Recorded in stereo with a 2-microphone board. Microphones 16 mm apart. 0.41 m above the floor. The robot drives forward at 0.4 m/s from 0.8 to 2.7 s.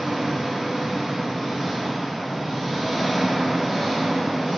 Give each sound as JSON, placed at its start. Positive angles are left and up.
{"t": 0.0, "sound": "an engine running", "side_deg": -75, "distance_m": 1.1}